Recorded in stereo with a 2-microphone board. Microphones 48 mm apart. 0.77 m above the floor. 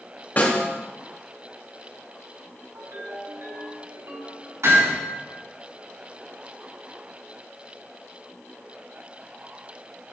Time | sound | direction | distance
0.4 | a snare drum | 40° left (ahead or behind) | 1.9 m
2.8 | a ringtone | 65° right (ahead or behind) | 3 m
4.6 | hammering | 85° right | 4 m